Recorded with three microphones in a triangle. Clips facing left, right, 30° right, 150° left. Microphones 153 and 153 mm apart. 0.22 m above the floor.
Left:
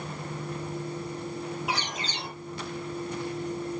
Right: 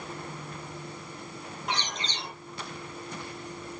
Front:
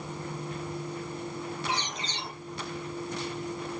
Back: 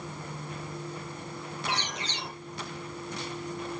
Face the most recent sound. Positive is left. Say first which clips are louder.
# left 2 dB, even
turn(degrees=175)